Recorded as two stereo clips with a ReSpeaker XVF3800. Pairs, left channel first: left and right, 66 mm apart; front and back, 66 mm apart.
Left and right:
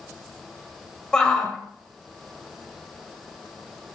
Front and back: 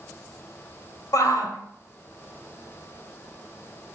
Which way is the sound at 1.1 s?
10° left.